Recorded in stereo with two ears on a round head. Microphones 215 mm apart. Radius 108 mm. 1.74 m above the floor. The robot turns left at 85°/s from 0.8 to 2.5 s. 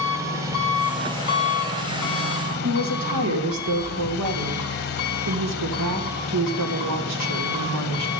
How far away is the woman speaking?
About 2 m.